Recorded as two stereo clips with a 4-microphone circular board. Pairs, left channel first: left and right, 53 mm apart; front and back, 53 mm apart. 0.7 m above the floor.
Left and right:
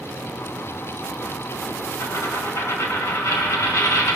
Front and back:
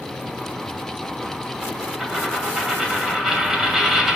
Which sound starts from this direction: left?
A dropped coin, at 2.0 s.